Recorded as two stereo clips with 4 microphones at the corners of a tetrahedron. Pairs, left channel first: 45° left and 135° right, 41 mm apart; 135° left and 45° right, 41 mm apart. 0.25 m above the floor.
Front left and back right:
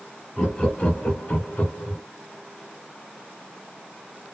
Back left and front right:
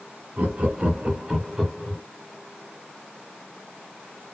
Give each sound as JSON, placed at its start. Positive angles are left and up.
{"t": 0.4, "sound": "laughter", "azimuth_deg": -15, "distance_m": 1.4}